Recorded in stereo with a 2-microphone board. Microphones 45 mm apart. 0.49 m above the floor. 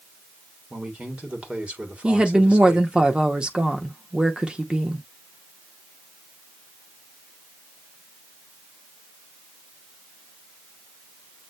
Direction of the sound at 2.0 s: 20° right (ahead or behind).